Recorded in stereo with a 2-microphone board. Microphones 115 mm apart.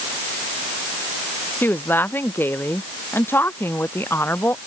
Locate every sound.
1.6 s a woman speaking: 15° left (ahead or behind); by 4.6 s 20° left (ahead or behind)